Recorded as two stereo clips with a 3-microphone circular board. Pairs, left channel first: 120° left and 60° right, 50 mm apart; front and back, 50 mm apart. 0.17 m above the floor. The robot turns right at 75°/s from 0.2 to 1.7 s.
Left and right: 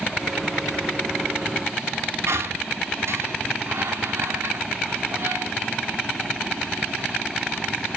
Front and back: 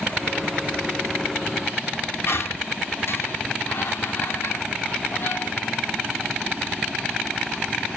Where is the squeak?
30° right, 0.5 m.